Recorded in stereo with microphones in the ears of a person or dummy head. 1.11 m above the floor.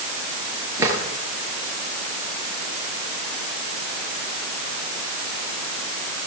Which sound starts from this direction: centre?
A drawer, at 0.8 s.